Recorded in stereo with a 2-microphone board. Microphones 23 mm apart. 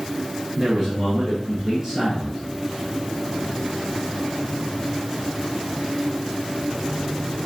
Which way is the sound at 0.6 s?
20° right (ahead or behind).